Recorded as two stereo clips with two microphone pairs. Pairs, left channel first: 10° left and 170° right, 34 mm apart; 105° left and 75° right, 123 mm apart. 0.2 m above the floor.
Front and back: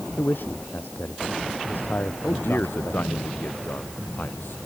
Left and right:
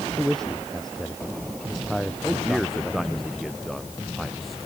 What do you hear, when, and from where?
0.2 s a man speaking: 20° left; by 3.2 s 15° left
2.2 s a man speaking: 15° left